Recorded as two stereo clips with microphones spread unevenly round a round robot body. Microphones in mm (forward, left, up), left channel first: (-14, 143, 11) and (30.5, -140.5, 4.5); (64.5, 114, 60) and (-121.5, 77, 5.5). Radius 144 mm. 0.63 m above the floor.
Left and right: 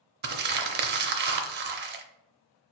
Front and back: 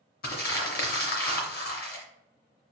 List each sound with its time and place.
0.2 s crumpling: 25° right, 0.6 m